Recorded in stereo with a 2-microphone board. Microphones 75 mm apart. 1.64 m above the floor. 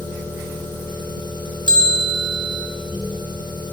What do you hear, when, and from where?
0.0 s an engine running: 80° right, 7.5 m
1.7 s a bell: 70° right (ahead or behind), 4.5 m